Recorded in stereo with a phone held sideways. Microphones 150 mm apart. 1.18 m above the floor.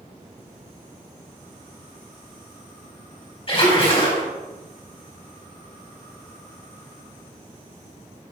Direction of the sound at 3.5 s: 35° left (ahead or behind).